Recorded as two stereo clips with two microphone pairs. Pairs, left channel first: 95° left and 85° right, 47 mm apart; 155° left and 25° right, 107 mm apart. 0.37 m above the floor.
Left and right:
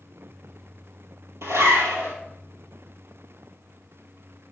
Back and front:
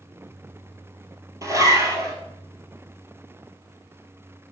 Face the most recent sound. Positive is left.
turn(degrees=-80)